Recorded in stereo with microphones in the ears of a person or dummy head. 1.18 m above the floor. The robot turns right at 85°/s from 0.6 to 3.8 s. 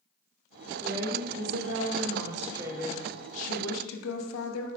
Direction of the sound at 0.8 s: 170° right.